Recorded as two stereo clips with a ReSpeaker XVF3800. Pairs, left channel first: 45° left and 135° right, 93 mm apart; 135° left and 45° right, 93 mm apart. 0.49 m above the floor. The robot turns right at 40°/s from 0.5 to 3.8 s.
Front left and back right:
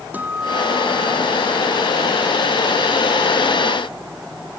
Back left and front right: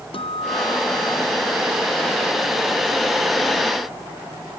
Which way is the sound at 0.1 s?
150° left.